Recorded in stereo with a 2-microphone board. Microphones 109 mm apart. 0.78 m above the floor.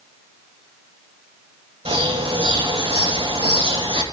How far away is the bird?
About 9 m.